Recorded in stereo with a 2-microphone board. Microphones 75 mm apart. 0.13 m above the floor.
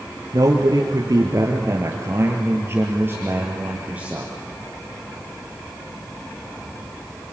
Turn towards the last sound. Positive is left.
turn(degrees=-15)  # may be behind; listen again after turning